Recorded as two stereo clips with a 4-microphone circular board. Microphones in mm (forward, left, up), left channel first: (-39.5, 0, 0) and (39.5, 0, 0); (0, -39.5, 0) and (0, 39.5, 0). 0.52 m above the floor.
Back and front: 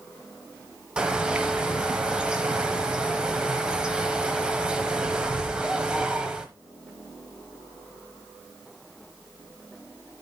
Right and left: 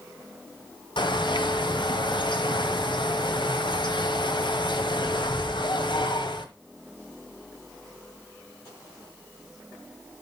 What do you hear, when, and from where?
1.0 s a bird: 80° right, 1.0 m